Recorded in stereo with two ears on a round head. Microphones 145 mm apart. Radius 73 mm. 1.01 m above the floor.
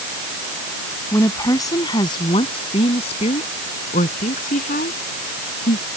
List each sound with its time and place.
1.1 s a woman speaking: 15° left (ahead or behind); by 5.8 s 55° left (ahead or behind)